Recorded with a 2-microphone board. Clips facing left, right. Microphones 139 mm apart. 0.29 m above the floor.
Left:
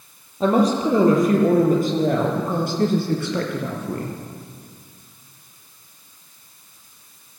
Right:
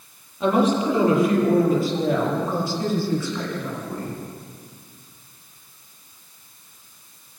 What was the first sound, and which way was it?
A woman speaking, 35° left (ahead or behind).